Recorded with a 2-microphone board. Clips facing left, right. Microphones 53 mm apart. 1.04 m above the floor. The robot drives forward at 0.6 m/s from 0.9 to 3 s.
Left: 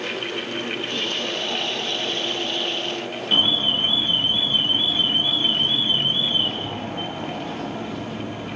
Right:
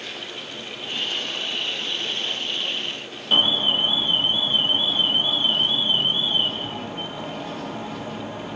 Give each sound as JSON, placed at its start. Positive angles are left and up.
{"t": 3.3, "sound": "an alarm", "side_deg": -5, "distance_m": 1.4}